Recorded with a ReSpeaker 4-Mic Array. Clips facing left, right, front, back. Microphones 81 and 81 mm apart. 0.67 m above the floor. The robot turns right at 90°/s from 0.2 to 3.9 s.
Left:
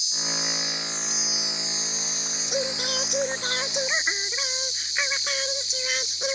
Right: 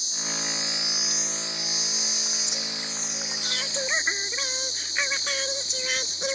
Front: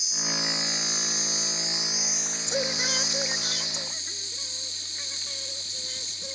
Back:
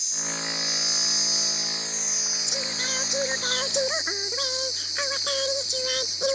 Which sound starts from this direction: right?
An insect, at 0.0 s.